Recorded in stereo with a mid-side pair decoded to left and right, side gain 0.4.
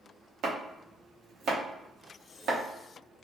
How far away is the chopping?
About 0.8 m.